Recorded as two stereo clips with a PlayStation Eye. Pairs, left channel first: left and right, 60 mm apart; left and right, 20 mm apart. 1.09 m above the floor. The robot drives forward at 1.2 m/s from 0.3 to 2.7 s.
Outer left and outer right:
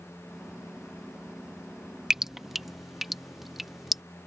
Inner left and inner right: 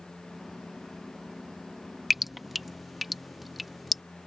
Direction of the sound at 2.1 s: 10° right (ahead or behind).